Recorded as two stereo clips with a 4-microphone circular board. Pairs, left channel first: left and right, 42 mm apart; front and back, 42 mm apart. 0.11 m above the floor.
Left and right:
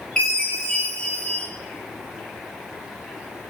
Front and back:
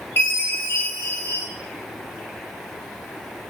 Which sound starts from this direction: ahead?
A chime, at 0.2 s.